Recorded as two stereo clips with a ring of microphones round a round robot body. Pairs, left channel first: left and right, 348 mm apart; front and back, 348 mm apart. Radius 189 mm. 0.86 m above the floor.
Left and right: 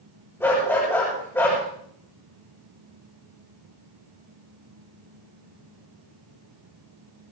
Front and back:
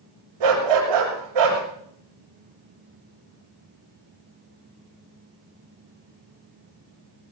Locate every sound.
0.4 s a dog barking: 175° left, 6.5 m